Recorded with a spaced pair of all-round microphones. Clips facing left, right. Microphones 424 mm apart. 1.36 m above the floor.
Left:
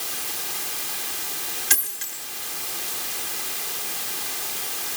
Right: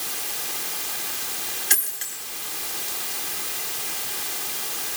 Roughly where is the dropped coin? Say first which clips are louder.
Even; left.